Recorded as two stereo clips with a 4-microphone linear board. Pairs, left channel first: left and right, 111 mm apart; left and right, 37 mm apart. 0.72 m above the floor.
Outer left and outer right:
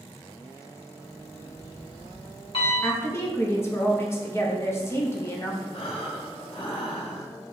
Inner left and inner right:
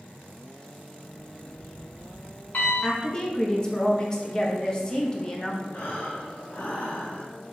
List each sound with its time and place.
1.0 s an alarm clock: 55° left (ahead or behind), 1.5 m
2.8 s a woman speaking: 25° left (ahead or behind), 0.7 m
5.7 s breathing: 55° left (ahead or behind), 0.9 m